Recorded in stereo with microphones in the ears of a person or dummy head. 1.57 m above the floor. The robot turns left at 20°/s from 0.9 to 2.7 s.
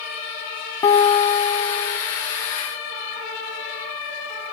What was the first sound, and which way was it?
A guitar, 15° left (ahead or behind).